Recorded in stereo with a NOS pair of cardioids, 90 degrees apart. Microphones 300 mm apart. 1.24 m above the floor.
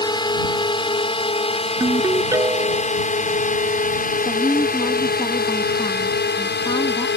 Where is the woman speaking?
15° left.